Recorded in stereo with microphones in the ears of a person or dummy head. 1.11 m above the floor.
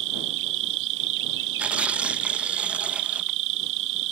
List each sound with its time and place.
0.0 s an insect: 55° right (ahead or behind)
1.6 s tearing paper: 5° right (ahead or behind)